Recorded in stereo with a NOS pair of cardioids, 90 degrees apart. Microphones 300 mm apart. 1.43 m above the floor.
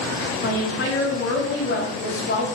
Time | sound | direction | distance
0.4 | a woman speaking | 45° left | 3 m